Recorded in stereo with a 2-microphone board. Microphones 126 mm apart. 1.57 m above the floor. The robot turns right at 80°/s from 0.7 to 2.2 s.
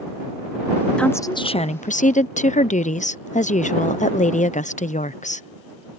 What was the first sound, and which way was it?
A woman speaking, 5° left.